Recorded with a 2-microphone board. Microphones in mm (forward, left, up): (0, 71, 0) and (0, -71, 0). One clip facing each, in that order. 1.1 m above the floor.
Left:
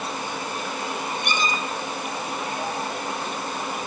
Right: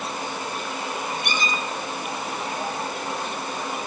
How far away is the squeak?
About 1.3 m.